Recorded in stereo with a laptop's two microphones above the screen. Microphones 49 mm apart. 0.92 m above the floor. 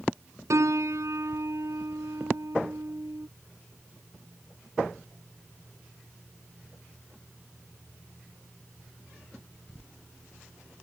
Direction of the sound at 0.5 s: 80° right.